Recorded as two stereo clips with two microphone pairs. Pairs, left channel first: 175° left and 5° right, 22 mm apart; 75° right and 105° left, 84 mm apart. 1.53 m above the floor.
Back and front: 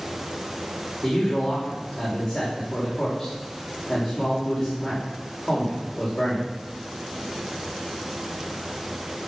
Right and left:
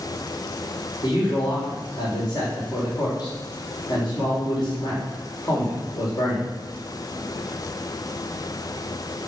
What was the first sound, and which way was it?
A man speaking, 110° right.